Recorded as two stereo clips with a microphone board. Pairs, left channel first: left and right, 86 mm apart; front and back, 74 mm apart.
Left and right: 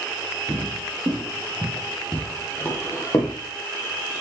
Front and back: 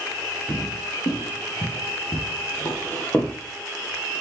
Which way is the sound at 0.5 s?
25° right.